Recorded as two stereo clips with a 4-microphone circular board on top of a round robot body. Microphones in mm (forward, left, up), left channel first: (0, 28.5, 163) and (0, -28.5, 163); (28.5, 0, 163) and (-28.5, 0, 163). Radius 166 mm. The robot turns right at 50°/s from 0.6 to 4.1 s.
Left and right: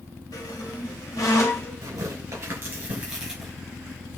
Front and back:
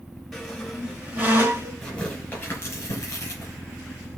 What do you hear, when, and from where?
0.3 s a squeak: 85° left, 2.5 m; by 1.8 s 145° left, 2.5 m
1.8 s tearing paper: 85° right, 5 m; by 3.5 s 5° left, 5 m